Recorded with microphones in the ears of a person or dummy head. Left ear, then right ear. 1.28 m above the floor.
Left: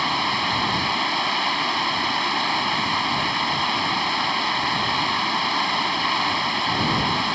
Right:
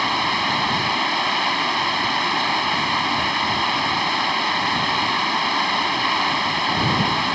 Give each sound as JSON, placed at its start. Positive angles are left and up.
{"t": 0.0, "sound": "running water", "side_deg": 0}